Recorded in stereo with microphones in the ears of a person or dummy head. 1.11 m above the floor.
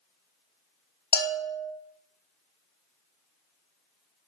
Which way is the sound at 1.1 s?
20° left (ahead or behind).